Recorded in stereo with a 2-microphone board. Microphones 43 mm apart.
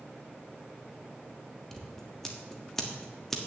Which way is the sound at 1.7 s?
10° left (ahead or behind).